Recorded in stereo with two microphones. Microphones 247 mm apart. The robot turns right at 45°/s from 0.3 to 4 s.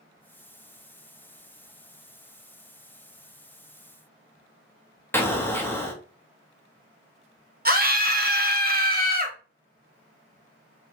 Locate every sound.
5.1 s an explosion: 10° left (ahead or behind), 0.5 m
7.7 s a scream: 40° right (ahead or behind), 0.7 m